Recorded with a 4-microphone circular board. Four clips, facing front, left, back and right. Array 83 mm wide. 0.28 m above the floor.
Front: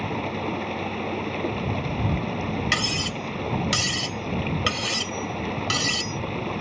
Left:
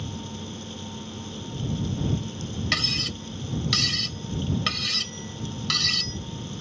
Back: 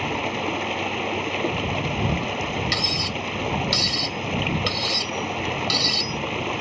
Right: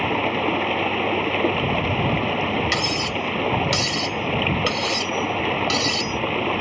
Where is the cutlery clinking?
15° right.